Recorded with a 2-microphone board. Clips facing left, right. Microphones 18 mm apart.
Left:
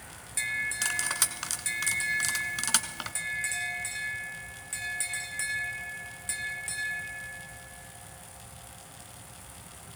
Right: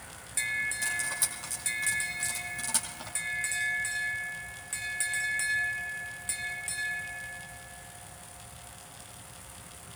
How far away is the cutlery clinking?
About 1.5 m.